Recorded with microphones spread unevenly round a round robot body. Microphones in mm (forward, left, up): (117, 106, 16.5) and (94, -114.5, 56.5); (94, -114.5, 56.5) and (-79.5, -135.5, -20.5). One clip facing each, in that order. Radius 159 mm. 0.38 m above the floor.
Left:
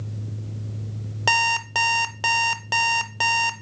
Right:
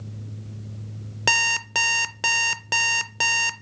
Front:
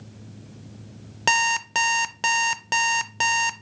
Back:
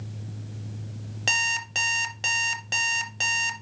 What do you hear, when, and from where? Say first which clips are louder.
1.3 s an alarm clock: left 2 dB, front 11 dB; 25° right, 0.5 m